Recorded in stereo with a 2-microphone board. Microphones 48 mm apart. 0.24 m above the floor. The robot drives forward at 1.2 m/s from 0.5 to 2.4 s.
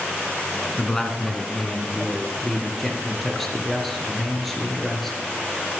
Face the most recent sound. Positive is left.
turn(degrees=5)  # may be behind; listen again after turning